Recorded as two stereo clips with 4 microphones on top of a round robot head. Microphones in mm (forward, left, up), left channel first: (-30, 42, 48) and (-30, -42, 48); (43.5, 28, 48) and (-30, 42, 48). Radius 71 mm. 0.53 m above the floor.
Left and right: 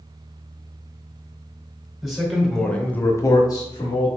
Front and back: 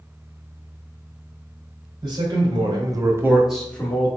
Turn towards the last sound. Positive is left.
turn(degrees=45)